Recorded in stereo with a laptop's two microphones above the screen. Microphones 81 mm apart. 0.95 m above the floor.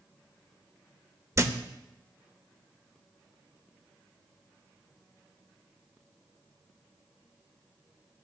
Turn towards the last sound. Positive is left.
turn(degrees=-40)  # may be behind; listen again after turning